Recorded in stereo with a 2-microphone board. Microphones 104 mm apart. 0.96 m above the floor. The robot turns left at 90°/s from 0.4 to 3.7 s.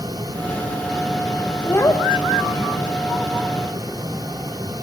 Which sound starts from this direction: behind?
A child speaking, at 1.6 s.